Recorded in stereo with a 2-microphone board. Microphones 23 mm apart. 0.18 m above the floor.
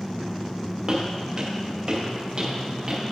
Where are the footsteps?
45° right (ahead or behind), 3 m; by 3.0 s 40° right (ahead or behind), 4.5 m.